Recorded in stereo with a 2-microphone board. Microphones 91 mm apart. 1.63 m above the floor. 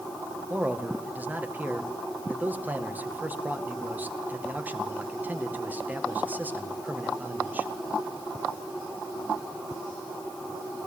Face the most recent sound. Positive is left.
turn(degrees=-20)  # may be behind; listen again after turning